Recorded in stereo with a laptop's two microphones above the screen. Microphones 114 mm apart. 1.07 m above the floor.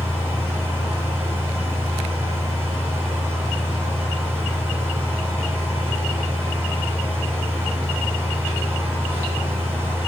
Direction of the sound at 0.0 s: 20° right (ahead or behind).